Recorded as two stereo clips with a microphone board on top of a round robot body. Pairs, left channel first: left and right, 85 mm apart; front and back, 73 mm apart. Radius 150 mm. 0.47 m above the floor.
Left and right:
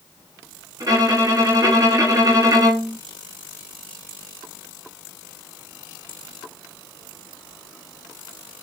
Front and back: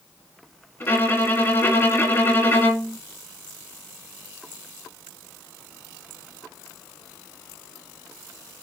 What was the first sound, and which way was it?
A violin, 55° right.